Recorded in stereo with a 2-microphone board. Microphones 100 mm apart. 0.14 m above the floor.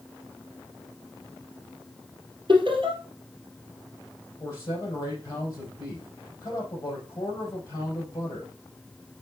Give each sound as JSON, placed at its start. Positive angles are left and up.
{"t": 2.5, "sound": "laughter", "side_deg": -55, "distance_m": 2.0}
{"t": 4.4, "sound": "a man speaking", "side_deg": 35, "distance_m": 4.0}